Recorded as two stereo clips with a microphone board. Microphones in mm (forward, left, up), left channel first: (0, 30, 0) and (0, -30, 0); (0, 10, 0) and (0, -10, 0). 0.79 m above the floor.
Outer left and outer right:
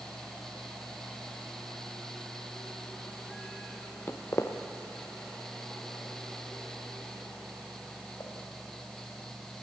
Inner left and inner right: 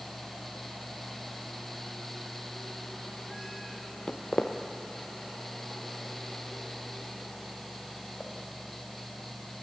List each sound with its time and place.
4.1 s footsteps: 45° left (ahead or behind), 1.1 m; by 8.3 s 75° left (ahead or behind), 5 m